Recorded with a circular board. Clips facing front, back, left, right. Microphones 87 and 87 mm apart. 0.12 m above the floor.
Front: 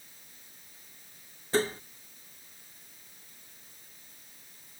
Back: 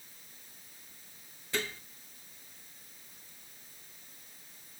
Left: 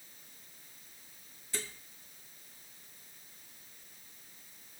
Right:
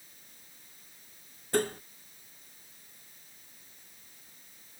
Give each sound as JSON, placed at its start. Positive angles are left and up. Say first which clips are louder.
{"t": 1.5, "sound": "dishes clattering", "louder": "front 9 dB, right 15 dB", "azimuth_deg": -55}